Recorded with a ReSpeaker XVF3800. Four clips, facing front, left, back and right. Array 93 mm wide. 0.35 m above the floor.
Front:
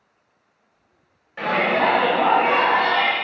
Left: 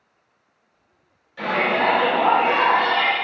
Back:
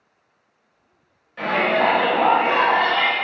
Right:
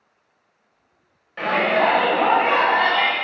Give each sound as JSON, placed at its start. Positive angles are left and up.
{"t": 1.4, "sound": "a shout", "azimuth_deg": -70, "distance_m": 1.5}